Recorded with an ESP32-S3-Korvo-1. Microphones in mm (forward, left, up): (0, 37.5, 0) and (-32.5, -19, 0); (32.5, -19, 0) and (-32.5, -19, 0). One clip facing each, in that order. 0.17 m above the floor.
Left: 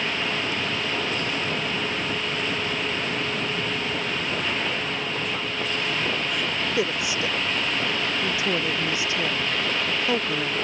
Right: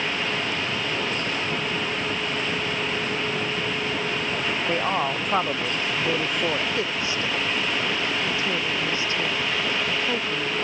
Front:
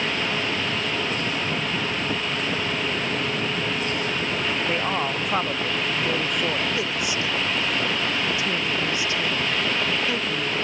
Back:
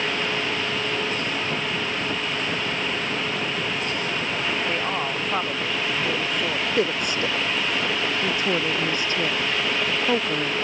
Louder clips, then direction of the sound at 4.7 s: Right 5 dB, front 1 dB; 85° right.